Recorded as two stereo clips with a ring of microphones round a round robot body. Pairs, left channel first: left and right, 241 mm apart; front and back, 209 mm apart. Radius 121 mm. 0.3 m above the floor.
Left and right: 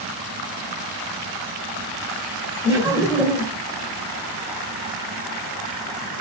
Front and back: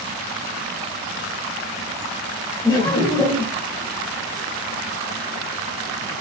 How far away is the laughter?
About 1.0 m.